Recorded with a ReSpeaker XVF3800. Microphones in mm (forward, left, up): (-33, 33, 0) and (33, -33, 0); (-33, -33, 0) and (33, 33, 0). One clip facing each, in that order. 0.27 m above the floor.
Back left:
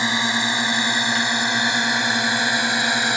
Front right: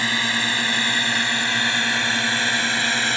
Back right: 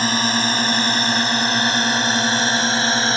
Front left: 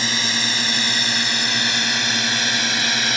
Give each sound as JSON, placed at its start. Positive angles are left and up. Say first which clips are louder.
{"t": 0.0, "sound": "a drone", "louder": "back left 2 dB, back right 6 dB", "azimuth_deg": -160}